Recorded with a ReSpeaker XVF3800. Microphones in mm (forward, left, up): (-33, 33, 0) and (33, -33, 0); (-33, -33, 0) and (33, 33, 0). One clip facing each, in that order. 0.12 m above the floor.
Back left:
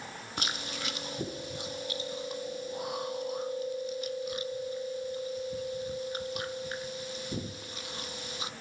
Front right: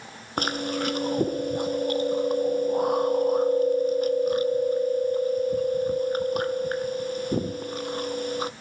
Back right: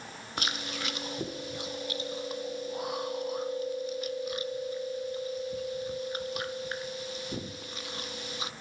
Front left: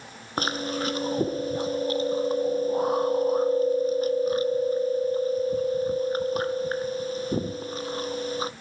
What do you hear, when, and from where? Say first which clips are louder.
0.4 s chewing: front right 12 dB, front left 9 dB; 5° right, 0.7 m